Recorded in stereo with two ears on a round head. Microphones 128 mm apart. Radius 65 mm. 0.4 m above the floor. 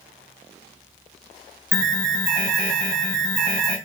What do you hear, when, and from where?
1.7 s an alarm: 10° left (ahead or behind), 2.5 m